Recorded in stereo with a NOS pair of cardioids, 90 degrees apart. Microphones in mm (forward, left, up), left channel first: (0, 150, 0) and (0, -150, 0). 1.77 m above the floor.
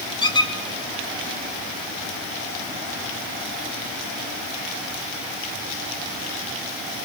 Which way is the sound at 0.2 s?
15° left.